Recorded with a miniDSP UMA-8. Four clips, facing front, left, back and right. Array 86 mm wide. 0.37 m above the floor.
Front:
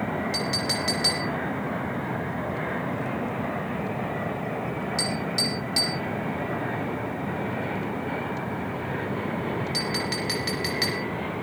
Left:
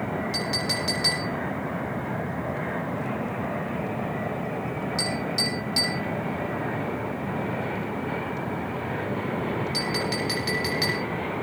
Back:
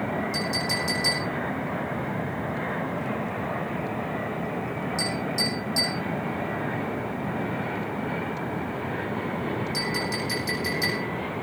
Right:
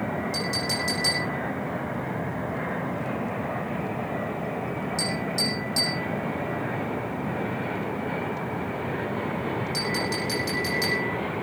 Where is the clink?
30° left, 8.5 m.